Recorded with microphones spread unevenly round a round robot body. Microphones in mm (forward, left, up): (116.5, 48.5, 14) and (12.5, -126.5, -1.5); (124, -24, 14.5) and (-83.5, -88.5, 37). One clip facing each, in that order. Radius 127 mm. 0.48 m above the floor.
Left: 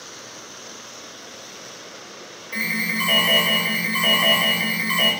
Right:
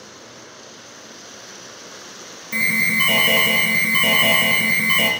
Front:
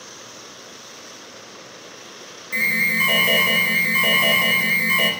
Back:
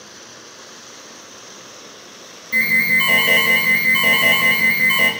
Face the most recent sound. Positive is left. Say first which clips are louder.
# right 1 dB, back 2 dB
turn(degrees=-75)